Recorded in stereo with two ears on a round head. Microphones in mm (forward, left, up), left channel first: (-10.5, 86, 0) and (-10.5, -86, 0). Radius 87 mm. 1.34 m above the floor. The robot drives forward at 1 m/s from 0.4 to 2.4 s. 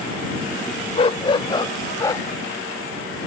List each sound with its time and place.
0.9 s a dog barking: 30° left (ahead or behind); by 2.3 s 15° left (ahead or behind)